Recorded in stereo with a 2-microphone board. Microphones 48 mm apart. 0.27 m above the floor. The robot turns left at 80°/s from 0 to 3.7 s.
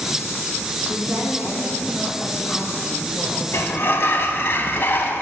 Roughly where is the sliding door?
Left.